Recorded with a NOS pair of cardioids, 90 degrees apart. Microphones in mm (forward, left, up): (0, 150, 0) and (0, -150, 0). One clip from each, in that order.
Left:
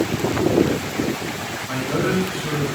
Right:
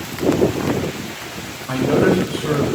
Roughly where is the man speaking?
Ahead right.